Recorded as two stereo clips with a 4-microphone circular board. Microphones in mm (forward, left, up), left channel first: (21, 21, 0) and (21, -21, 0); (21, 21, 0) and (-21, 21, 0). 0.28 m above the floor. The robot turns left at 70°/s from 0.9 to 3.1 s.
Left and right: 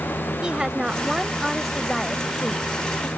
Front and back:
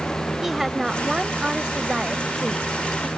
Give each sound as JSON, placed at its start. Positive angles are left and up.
{"t": 0.4, "sound": "a woman speaking", "azimuth_deg": -110}